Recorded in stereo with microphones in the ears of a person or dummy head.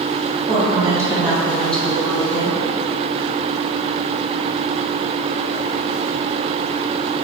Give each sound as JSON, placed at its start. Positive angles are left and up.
{"t": 0.5, "sound": "a woman speaking", "side_deg": -35, "distance_m": 0.6}